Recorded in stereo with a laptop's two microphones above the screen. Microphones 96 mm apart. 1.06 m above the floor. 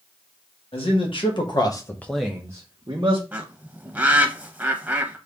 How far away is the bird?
About 0.9 m.